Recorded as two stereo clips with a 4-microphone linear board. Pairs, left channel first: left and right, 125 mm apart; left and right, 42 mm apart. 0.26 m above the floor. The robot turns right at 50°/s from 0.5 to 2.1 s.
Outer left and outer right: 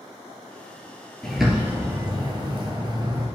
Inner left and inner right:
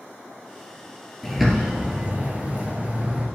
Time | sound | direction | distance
1.2 | a bird | 175° left | 1.7 m